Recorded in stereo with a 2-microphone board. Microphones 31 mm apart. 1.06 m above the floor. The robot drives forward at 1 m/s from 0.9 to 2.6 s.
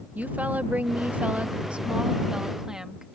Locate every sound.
0.1 s a woman speaking: 50° right (ahead or behind); by 3.0 s 20° right (ahead or behind)